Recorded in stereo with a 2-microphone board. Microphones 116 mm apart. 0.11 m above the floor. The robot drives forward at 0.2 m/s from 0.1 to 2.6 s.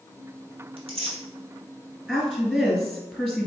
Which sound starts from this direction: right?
Tearing paper, at 0.8 s.